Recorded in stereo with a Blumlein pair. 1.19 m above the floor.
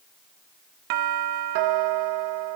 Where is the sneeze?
No sneeze in this recording.